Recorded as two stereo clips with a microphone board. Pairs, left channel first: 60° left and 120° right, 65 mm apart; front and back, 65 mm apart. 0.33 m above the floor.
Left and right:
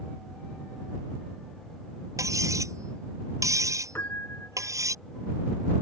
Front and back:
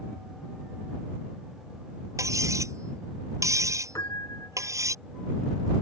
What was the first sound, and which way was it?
Cutlery clinking, 150° right.